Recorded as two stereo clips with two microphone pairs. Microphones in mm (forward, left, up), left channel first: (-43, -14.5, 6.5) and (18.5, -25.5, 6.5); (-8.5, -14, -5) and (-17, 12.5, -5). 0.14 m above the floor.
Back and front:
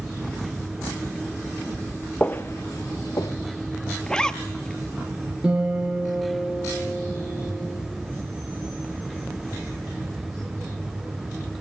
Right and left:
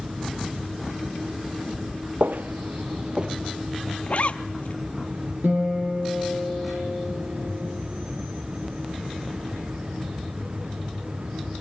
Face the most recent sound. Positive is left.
turn(degrees=75)